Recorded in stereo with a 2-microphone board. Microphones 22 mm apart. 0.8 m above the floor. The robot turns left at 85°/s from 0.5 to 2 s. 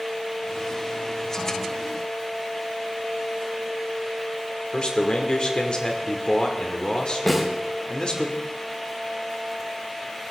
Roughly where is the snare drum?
Centre.